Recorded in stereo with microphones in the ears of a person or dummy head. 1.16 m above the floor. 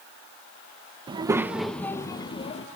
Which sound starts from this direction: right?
A child speaking, at 1.1 s.